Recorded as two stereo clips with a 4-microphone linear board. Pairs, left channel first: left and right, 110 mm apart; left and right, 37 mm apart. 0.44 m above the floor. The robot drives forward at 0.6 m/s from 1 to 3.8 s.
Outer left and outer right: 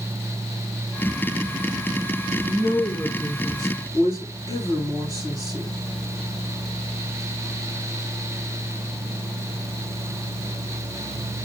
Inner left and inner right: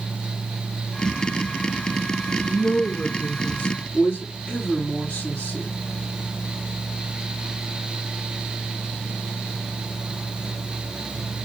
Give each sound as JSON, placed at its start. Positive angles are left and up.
{"t": 2.4, "sound": "a woman speaking", "side_deg": 35, "distance_m": 3.5}